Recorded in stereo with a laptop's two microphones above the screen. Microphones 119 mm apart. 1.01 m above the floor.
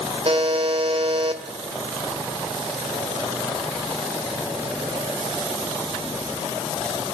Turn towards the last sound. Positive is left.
turn(degrees=-50)  # may be behind; listen again after turning